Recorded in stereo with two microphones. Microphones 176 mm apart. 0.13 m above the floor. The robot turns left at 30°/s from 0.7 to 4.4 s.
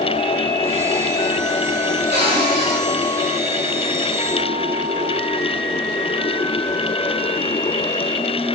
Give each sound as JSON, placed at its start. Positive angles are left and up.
{"t": 2.1, "sound": "a cupboard door", "side_deg": -75, "distance_m": 4.0}